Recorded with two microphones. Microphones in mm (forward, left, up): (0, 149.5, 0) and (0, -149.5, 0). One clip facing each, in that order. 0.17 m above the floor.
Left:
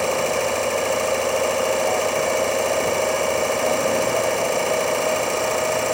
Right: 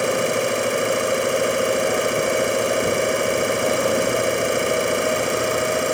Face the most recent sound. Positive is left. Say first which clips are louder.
# right 1 dB
turn(degrees=-20)  # may be behind; listen again after turning